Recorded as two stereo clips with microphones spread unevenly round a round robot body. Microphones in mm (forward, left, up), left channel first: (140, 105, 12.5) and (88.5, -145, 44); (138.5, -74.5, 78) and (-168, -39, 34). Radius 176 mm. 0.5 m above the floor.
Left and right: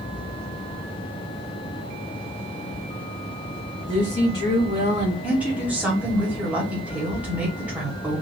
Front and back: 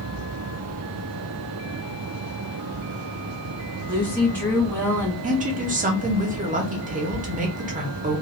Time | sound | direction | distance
3.9 | a woman speaking | 85° left | 1.7 m
5.2 | a woman speaking | 165° left | 1.1 m